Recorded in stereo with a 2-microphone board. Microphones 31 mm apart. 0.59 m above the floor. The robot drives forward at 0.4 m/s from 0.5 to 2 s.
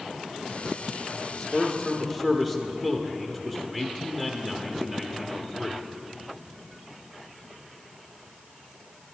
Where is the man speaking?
10° right (ahead or behind), 1.0 m.